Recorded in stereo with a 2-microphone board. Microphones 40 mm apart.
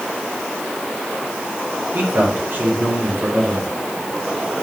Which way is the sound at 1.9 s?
55° right (ahead or behind).